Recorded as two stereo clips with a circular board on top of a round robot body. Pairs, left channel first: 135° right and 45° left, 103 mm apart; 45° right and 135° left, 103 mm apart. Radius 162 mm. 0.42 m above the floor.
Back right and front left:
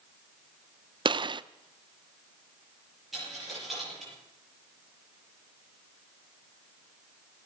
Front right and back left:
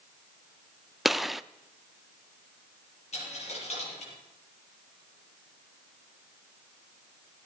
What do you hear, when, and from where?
1.1 s a gunshot: 45° left, 0.6 m
3.1 s a dropped coin: 45° right, 6.5 m